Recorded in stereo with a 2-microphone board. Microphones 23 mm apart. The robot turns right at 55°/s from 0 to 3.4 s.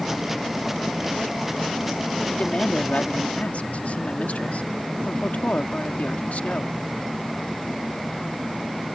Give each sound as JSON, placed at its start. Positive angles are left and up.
{"t": 2.3, "sound": "a woman speaking", "azimuth_deg": 40}